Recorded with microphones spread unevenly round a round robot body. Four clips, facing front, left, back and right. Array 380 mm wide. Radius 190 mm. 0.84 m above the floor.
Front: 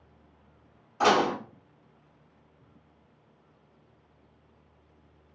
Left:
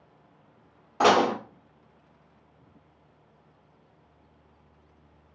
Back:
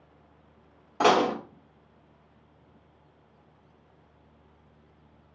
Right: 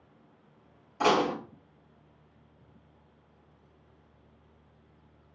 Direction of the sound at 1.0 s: 140° left.